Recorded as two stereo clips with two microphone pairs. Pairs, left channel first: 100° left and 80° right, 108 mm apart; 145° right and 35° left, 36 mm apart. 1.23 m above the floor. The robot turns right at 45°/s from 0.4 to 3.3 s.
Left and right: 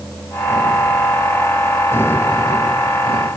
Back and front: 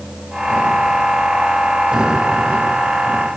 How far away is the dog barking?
No dog barking in this recording.